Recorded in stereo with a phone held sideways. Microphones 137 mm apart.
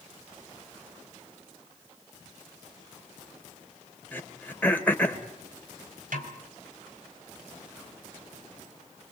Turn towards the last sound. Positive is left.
turn(degrees=-80)